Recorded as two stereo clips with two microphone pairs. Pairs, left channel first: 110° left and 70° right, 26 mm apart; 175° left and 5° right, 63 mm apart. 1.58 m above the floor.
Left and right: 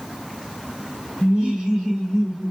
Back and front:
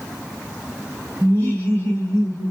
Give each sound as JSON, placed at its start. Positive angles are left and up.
{"t": 1.2, "sound": "laughter", "azimuth_deg": -125, "distance_m": 1.8}